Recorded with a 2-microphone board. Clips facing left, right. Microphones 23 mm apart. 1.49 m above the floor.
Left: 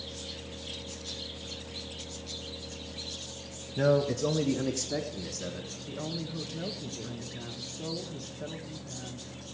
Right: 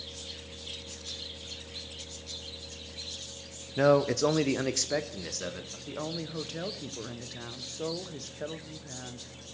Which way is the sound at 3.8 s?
35° right (ahead or behind).